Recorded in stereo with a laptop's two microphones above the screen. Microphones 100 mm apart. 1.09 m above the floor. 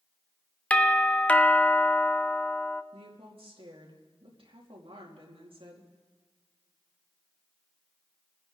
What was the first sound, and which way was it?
A doorbell, 15° left (ahead or behind).